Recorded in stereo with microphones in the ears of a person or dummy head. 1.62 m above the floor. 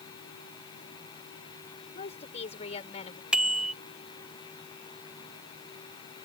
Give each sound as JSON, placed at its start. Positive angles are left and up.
{"t": 1.9, "sound": "a woman speaking", "side_deg": 40}
{"t": 3.3, "sound": "a bicycle bell", "side_deg": -5}